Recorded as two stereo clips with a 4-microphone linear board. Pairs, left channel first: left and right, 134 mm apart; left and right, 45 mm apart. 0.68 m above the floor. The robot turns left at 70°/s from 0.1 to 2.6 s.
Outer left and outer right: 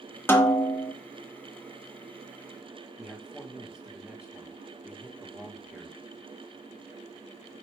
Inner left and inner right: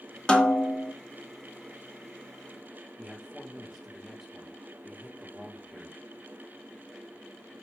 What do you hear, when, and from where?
0.3 s a snare drum: 150° left, 0.5 m; by 0.9 s 105° left, 0.5 m
3.0 s a man speaking: 5° right (ahead or behind), 1.0 m